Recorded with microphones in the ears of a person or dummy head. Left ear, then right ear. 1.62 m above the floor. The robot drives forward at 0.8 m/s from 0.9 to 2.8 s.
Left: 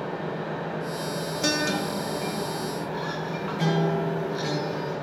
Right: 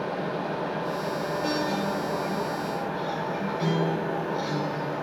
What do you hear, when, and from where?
0.0 s an engine running: 55° right (ahead or behind), 1.4 m; by 5.0 s 50° right (ahead or behind), 1.5 m
1.4 s a guitar: 80° left, 0.9 m; by 4.9 s 35° left (ahead or behind), 1.5 m